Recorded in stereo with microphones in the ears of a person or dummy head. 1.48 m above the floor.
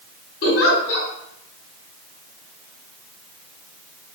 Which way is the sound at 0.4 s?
55° left (ahead or behind).